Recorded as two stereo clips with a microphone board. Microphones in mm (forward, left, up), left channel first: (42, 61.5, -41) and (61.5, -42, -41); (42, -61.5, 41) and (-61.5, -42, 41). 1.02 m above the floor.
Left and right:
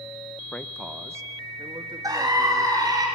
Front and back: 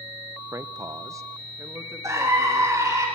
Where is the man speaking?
150° left, 0.6 m; by 3.0 s 120° right, 3 m.